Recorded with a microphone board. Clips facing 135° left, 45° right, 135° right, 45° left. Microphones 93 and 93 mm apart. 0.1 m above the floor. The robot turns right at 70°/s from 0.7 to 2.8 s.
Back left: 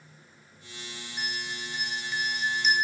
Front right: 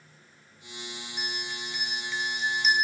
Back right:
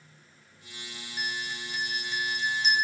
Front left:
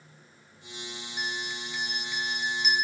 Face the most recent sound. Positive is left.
turn(degrees=-115)